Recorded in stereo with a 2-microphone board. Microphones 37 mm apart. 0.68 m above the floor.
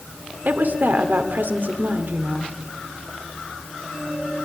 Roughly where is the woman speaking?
Right.